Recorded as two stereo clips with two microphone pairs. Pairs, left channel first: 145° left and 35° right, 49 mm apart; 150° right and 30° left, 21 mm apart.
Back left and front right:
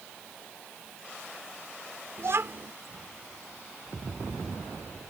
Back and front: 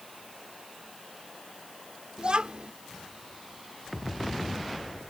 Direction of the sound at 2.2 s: 10° right.